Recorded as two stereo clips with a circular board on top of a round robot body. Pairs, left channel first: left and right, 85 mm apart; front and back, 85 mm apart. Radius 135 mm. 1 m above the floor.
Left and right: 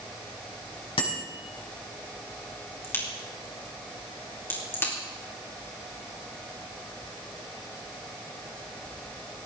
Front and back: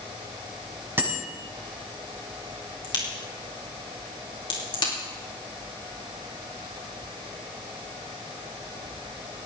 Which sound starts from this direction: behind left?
A bicycle bell, at 1.0 s.